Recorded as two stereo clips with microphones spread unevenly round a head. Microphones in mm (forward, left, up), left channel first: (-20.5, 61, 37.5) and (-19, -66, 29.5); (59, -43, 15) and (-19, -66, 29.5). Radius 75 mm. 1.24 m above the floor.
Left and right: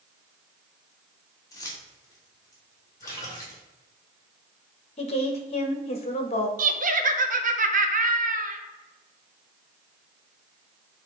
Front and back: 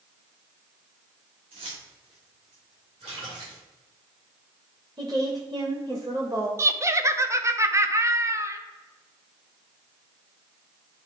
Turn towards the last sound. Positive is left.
turn(degrees=-105)